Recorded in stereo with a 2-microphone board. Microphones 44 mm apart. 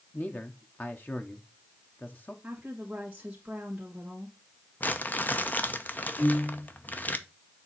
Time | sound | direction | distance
0.1 | a man speaking | 40° left (ahead or behind) | 0.9 m
2.4 | a woman speaking | 25° right (ahead or behind) | 1.6 m
4.8 | crumpling | 40° left (ahead or behind) | 0.7 m
6.2 | a piano | 65° left (ahead or behind) | 4.5 m